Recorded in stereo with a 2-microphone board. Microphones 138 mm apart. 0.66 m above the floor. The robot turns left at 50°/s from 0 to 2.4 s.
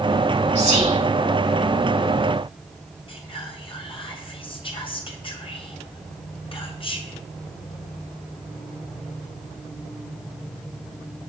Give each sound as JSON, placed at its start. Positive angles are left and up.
{"t": 0.6, "sound": "whispering", "side_deg": -55, "distance_m": 3.0}
{"t": 3.1, "sound": "whispering", "side_deg": 40, "distance_m": 0.9}